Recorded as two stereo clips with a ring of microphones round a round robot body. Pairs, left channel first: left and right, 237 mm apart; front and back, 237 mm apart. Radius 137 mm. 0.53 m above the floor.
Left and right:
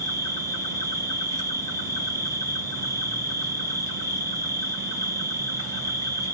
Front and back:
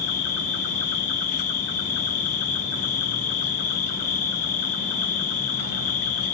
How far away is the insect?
About 1.5 m.